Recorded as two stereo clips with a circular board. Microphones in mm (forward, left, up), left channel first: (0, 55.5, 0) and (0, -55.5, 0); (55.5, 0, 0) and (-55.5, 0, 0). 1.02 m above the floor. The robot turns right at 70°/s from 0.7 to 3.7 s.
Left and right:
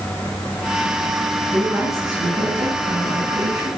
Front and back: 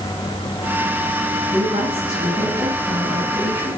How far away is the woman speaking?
About 6.5 m.